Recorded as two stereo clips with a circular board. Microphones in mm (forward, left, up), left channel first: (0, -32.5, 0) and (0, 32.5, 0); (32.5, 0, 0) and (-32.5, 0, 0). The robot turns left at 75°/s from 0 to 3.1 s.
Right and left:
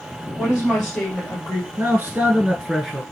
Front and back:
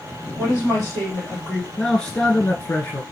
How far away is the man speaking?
About 1.5 m.